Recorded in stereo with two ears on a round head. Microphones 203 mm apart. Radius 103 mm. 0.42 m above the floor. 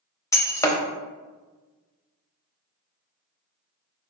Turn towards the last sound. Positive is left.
turn(degrees=15)  # may be behind; listen again after turning